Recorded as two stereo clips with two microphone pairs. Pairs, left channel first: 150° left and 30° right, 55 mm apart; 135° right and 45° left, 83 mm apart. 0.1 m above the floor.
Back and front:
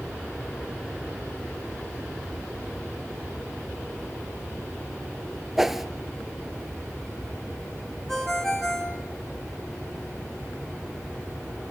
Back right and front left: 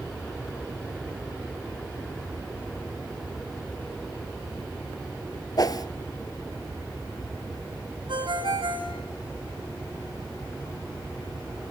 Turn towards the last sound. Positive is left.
turn(degrees=65)